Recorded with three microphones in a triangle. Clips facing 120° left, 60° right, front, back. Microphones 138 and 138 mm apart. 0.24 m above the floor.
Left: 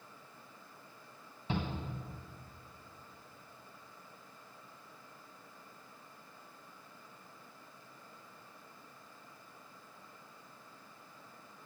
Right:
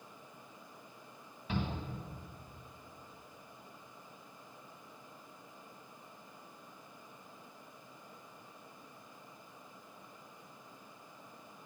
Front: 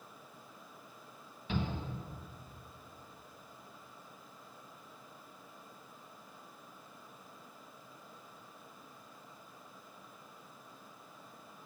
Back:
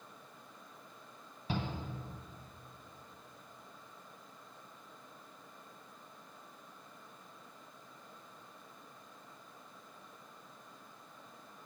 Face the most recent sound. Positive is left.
turn(degrees=160)